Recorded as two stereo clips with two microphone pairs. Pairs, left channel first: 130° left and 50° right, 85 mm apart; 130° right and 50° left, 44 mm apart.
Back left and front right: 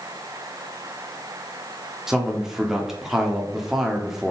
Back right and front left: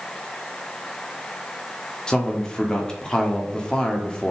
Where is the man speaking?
120° right, 1.1 m.